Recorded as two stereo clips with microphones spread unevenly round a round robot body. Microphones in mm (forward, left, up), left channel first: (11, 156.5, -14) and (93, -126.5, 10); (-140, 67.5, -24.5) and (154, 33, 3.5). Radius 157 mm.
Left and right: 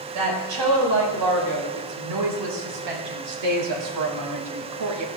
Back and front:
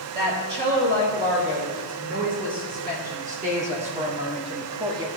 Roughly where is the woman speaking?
Right.